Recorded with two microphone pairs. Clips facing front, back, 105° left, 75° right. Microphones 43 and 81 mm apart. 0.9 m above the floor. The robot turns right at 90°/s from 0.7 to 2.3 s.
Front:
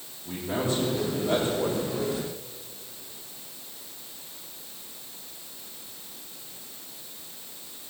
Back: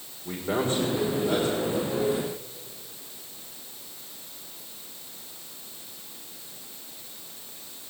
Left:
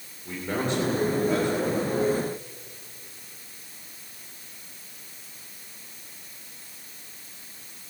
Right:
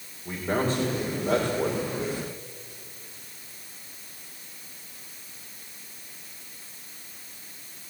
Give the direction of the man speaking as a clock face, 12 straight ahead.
5 o'clock.